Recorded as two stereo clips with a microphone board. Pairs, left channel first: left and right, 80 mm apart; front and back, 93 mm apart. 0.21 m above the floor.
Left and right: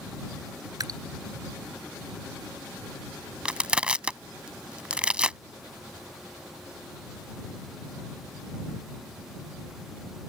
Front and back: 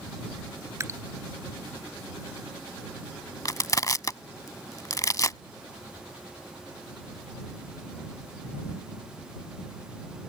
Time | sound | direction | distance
0.8 | dripping | 125° right | ?
3.5 | crushing | 20° right | ?